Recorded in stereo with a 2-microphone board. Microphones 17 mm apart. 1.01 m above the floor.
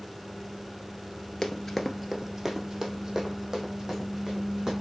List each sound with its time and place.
1.4 s running footsteps: 30° left (ahead or behind), 1.1 m; by 4.7 s 25° right (ahead or behind), 5 m